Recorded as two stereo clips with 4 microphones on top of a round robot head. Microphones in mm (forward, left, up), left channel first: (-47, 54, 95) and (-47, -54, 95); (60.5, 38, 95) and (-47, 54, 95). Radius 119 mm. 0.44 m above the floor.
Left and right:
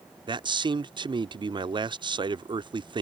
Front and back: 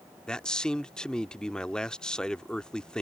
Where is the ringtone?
I don't hear a ringtone.